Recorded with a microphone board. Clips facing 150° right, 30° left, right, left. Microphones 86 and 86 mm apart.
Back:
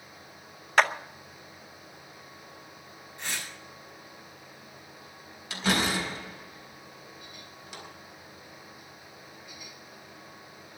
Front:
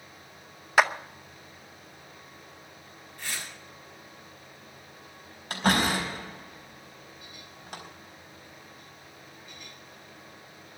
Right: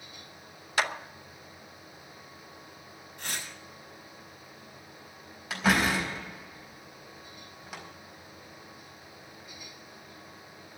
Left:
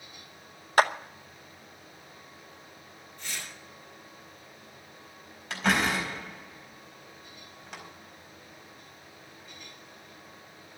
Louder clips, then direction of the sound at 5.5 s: Front 3 dB, right 1 dB; 5° right.